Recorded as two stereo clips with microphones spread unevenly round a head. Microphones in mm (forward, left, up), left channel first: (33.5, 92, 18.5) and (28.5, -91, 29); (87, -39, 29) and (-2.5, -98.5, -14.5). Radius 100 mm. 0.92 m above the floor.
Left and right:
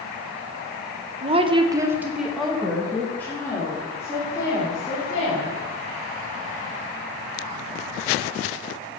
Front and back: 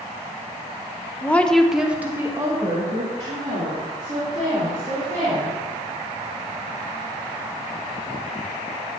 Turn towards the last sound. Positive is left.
turn(degrees=160)